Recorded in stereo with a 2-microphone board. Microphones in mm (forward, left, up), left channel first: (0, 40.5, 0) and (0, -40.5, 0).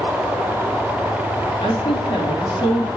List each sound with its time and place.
1.6 s a woman speaking: 80° left, 2.5 m; by 2.9 s 65° left (ahead or behind), 3 m